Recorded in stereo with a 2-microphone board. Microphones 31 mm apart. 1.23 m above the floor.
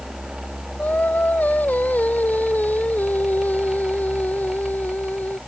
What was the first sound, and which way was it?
Singing, 60° left (ahead or behind).